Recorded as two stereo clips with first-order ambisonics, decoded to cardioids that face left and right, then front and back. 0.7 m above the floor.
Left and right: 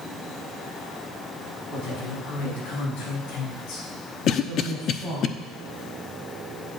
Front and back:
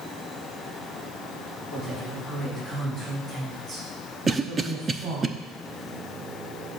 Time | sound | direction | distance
1.7 | a woman speaking | 80° left | 5 m
4.3 | a cough | 115° left | 0.5 m